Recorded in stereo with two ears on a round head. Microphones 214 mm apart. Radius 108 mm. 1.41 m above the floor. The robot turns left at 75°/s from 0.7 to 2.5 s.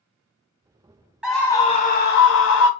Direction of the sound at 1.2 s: 175° right.